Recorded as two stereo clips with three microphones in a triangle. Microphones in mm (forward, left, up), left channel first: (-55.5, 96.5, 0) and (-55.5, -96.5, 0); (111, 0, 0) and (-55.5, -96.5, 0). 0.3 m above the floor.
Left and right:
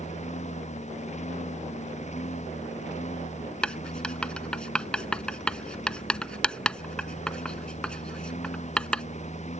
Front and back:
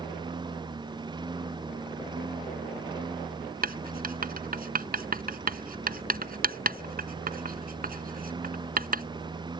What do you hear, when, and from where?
0.0 s a lawn mower: 145° left
3.6 s writing: 175° left